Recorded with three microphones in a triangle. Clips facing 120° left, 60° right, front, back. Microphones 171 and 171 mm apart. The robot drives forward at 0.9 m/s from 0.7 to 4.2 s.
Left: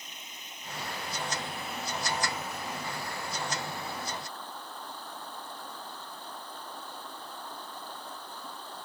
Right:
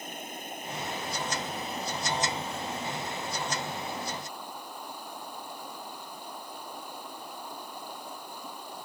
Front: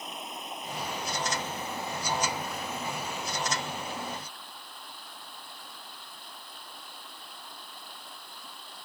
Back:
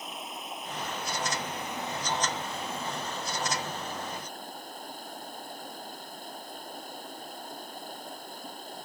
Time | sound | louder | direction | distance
0.0 | running water | right 11 dB, even | 90° right | ?